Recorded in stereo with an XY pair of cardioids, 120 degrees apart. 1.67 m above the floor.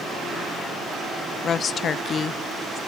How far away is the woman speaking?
About 0.8 m.